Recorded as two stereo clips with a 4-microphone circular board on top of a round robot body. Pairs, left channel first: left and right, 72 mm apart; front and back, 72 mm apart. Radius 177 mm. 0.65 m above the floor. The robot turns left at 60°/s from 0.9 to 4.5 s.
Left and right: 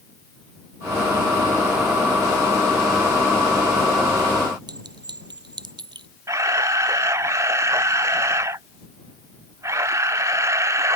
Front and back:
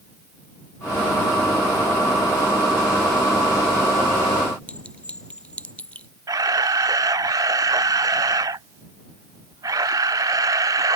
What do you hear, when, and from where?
4.7 s a clink: 75° right
6.3 s a camera shutter: 140° right